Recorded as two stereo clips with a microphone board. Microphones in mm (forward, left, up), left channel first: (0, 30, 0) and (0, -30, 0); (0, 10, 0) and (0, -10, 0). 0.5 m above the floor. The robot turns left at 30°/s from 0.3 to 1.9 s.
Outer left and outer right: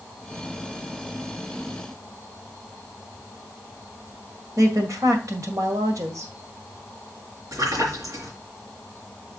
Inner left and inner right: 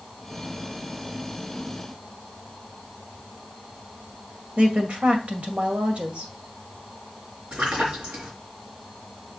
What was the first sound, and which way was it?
A woman speaking, 65° right (ahead or behind).